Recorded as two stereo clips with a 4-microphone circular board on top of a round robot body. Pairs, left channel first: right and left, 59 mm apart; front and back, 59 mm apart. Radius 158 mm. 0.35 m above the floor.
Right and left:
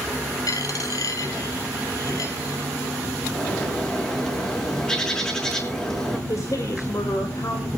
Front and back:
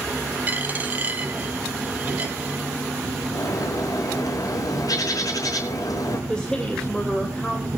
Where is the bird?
15° right, 5.5 m.